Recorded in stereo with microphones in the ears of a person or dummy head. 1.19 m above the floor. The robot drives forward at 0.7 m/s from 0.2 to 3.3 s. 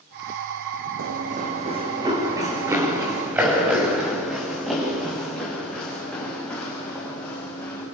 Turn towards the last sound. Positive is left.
turn(degrees=10)  # may be behind; listen again after turning